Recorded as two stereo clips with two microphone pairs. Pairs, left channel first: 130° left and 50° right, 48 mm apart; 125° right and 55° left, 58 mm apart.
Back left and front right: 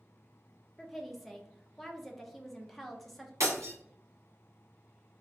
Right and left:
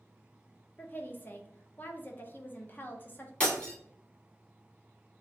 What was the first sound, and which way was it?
A woman speaking, 145° right.